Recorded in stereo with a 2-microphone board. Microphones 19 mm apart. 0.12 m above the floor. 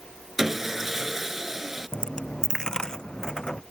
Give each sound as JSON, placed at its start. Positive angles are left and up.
{"t": 0.4, "sound": "sawing", "side_deg": -20}
{"t": 1.9, "sound": "a dropped coin", "side_deg": 35}